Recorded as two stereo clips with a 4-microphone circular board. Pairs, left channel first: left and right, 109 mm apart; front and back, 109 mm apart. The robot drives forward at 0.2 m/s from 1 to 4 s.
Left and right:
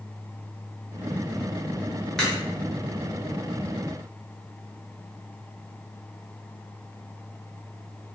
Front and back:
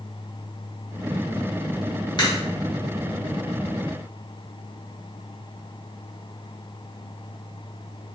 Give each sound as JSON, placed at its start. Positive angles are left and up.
{"t": 2.2, "sound": "a crack", "azimuth_deg": 5, "distance_m": 0.9}